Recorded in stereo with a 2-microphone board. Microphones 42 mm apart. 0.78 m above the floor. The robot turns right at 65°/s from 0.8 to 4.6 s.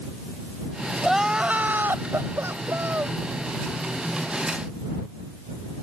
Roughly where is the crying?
Behind.